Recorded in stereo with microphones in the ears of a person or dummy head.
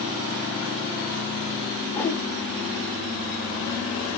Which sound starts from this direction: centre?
A whoosh, at 1.9 s.